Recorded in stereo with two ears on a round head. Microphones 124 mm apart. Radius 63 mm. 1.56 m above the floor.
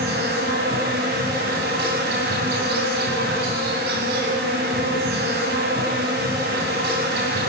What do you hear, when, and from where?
0.0 s an insect: 70° right (ahead or behind), 8.5 m